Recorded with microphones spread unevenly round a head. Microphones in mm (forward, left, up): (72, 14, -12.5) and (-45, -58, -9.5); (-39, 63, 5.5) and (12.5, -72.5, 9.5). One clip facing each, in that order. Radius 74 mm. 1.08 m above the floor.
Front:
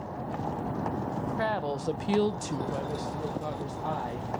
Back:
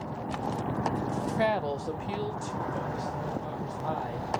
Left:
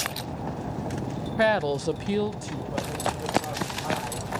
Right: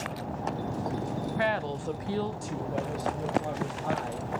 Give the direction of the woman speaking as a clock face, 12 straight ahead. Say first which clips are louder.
Back 3 dB, left 9 dB; 7 o'clock.